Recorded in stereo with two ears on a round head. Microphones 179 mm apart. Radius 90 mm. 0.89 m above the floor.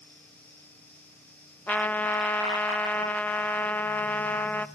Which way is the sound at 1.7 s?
10° left (ahead or behind).